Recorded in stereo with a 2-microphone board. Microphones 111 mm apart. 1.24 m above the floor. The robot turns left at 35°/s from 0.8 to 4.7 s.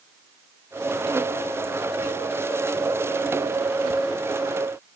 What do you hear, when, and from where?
Only background noise.